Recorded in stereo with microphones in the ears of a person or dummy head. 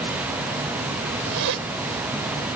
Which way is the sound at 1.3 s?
65° right (ahead or behind).